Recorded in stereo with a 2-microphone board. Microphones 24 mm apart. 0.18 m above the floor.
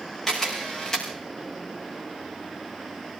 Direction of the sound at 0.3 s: 20° left (ahead or behind).